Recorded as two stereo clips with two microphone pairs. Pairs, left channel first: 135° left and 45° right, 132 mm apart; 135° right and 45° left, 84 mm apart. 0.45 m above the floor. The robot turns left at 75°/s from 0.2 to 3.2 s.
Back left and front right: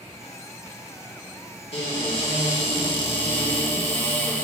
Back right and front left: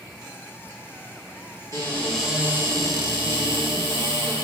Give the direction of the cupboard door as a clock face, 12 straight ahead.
6 o'clock.